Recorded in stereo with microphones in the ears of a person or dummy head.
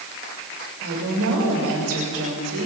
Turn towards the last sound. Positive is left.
turn(degrees=-90)